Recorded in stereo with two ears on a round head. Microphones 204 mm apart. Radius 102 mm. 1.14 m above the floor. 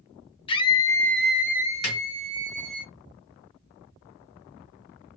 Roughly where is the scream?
Left.